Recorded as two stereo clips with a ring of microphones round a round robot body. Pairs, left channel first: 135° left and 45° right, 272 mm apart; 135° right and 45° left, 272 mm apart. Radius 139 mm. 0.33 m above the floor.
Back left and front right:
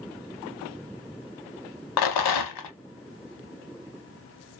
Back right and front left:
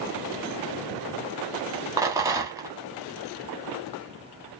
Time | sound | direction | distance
2.0 | a rattle | 125° left | 0.7 m